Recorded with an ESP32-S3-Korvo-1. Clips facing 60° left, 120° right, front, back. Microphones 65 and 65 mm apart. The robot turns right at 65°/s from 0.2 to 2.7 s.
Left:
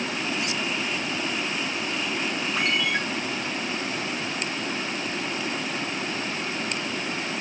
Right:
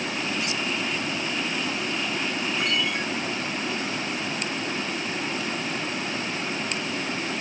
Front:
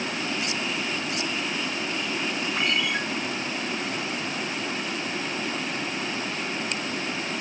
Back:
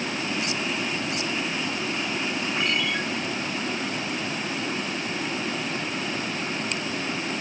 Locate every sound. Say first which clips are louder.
2.6 s a ringtone: left 3 dB, front 1 dB; 75° left, 6.5 m; by 3.0 s 85° left, 6.5 m